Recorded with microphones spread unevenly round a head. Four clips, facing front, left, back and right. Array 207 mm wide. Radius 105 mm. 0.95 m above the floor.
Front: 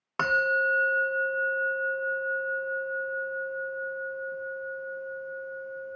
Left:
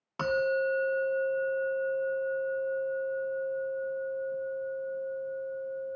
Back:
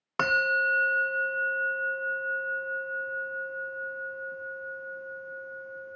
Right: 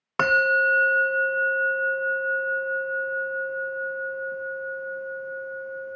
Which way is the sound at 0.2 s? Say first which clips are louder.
Right 7 dB, front 1 dB; 100° right.